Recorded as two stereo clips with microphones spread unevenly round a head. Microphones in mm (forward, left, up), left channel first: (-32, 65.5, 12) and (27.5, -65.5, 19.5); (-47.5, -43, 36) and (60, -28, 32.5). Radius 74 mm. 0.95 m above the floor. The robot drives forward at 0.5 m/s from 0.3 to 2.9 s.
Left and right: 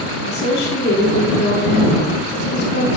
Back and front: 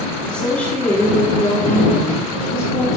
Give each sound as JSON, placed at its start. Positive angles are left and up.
{"t": 0.2, "sound": "a woman speaking", "azimuth_deg": 105, "distance_m": 3.5}